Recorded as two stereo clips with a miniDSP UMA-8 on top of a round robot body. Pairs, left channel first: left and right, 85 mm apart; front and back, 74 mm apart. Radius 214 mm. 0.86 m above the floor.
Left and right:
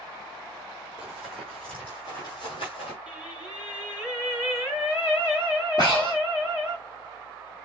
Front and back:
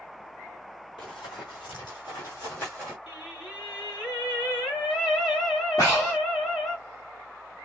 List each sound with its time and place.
1.0 s running footsteps: 5° right, 1.7 m; by 3.0 s 80° left, 1.3 m
3.1 s singing: 10° right, 1.8 m
5.8 s breathing: 55° left, 0.6 m